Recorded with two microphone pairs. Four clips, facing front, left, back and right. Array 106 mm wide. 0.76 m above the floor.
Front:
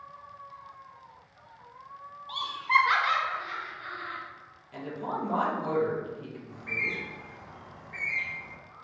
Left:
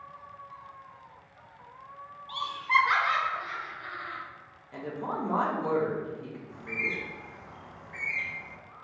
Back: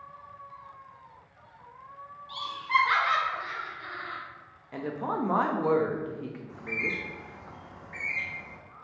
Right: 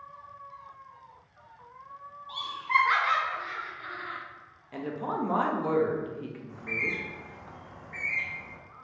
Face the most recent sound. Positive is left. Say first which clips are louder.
# even, even
turn(degrees=180)